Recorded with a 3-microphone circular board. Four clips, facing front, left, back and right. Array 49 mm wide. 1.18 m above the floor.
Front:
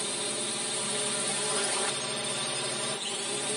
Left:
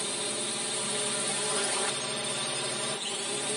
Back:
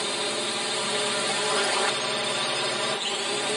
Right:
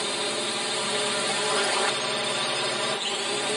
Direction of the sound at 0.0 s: 135° right.